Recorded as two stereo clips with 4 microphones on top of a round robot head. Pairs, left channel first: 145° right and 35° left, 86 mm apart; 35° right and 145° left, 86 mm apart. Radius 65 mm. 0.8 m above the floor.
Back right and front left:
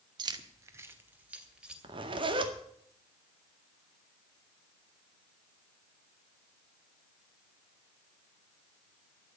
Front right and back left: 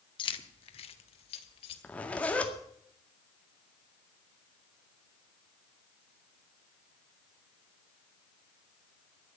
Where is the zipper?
40° left, 2 m.